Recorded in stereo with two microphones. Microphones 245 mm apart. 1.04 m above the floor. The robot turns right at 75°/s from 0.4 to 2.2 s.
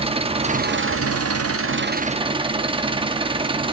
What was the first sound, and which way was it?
An engine running, 155° right.